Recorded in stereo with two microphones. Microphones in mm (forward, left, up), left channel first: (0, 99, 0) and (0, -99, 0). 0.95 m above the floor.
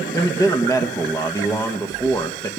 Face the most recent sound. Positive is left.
turn(degrees=15)  # may be behind; listen again after turning